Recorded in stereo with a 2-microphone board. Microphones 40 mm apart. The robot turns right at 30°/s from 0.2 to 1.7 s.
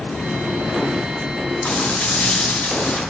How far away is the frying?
About 7.5 m.